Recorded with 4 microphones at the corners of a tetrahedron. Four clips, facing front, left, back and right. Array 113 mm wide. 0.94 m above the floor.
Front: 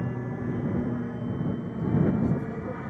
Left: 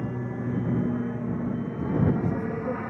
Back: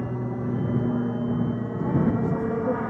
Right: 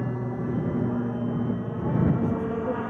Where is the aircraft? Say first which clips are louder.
Right 2 dB, back 3 dB; 130° right; by 2.9 s 160° right.